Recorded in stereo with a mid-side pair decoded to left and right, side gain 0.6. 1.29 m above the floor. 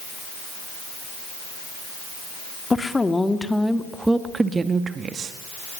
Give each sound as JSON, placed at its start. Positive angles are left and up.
{"t": 2.7, "sound": "a woman speaking", "azimuth_deg": 15, "distance_m": 2.5}